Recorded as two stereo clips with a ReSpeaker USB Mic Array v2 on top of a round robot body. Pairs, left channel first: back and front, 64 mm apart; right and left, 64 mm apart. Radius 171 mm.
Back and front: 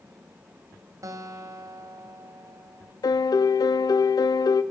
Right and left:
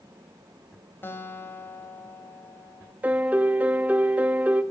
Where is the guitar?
35° right, 1.9 m.